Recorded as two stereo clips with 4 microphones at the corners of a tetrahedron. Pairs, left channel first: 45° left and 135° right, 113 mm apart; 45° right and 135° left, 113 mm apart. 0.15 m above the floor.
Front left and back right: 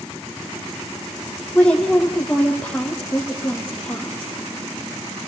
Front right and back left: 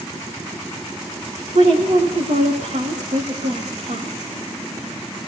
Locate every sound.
1.6 s a woman speaking: 125° left, 7.5 m